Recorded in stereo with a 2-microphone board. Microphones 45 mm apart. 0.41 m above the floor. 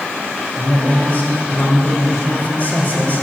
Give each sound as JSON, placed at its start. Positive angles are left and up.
{"t": 0.6, "sound": "a man speaking", "side_deg": 40, "distance_m": 1.6}